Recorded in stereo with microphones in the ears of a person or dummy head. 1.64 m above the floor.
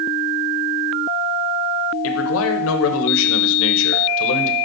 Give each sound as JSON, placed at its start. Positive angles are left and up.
{"t": 2.0, "sound": "a man speaking", "side_deg": 70, "distance_m": 0.9}